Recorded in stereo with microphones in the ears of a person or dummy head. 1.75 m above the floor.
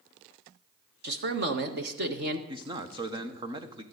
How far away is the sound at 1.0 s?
About 1.5 m.